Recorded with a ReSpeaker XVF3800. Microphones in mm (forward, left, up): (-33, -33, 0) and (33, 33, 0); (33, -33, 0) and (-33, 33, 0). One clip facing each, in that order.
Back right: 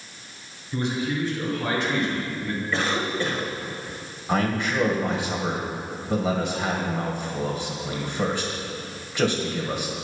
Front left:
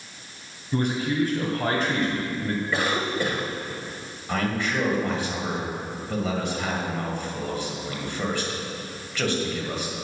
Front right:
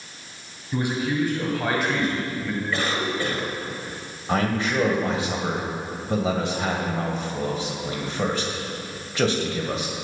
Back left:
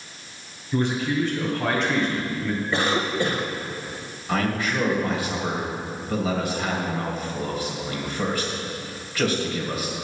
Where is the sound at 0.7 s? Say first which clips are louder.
Front left 2 dB, back left 1 dB; 30° left, 2.5 m; by 2.6 s 45° left, 1.8 m.